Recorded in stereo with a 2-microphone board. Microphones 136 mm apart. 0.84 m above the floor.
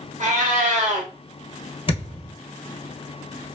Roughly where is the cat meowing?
Right.